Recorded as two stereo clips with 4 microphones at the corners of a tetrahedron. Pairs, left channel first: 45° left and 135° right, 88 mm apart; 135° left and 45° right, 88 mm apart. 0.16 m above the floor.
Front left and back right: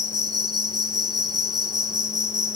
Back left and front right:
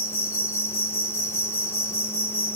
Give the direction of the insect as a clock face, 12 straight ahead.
6 o'clock.